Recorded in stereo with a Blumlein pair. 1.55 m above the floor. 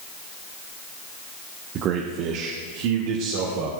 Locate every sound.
1.8 s a man speaking: 30° right, 0.9 m; by 3.7 s 50° right, 2.5 m